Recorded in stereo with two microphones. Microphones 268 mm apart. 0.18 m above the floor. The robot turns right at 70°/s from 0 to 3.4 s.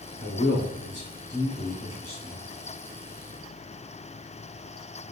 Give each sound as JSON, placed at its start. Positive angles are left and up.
{"t": 0.2, "sound": "a man speaking", "side_deg": 40, "distance_m": 1.2}